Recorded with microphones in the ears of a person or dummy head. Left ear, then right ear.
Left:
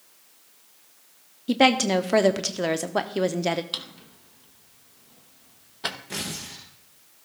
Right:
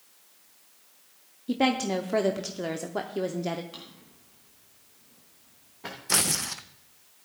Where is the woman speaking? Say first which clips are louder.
Left 7 dB; 30° left (ahead or behind), 0.6 m.